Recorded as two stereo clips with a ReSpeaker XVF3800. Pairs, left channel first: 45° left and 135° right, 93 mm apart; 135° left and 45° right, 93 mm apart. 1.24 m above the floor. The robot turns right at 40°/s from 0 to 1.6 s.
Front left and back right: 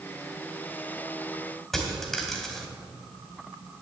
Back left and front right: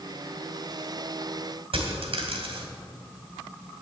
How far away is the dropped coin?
About 2 m.